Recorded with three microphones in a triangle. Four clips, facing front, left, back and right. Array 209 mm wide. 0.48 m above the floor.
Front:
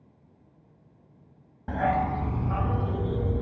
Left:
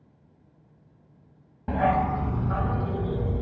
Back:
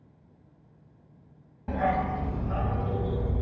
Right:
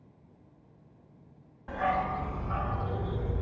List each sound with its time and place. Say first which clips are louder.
1.7 s a dog barking: left 6 dB, front 1 dB; 70° left, 0.8 m; by 3.4 s 30° left, 2.0 m